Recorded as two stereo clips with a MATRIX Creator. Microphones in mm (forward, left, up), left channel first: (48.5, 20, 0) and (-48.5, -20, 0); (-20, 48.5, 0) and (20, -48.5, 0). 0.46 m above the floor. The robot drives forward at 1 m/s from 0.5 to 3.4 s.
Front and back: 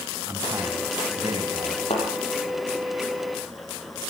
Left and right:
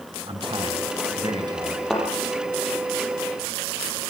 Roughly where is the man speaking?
Right.